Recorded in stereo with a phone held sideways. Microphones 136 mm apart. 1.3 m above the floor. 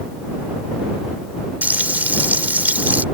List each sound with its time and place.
1.6 s frying: 15° right (ahead or behind)